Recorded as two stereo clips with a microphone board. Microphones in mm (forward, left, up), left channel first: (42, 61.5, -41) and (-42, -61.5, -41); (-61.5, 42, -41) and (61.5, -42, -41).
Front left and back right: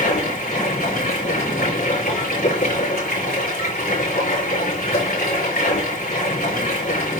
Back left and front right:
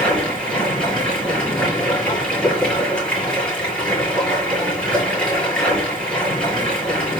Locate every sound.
0.0 s running water: 60° left, 6.5 m